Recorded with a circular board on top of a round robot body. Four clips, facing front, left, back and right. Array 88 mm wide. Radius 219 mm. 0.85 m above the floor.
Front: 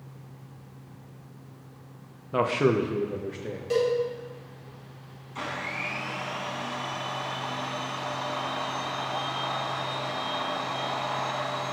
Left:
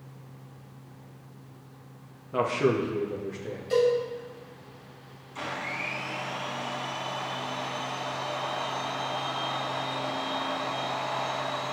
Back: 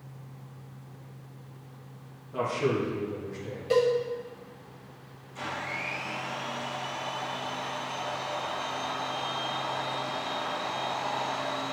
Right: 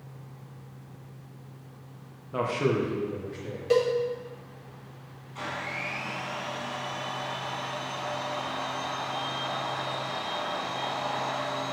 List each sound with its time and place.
2.3 s a man speaking: 10° left, 1.1 m
3.7 s a cowbell: 100° right, 3.5 m
5.3 s a blender: 15° left, 1.9 m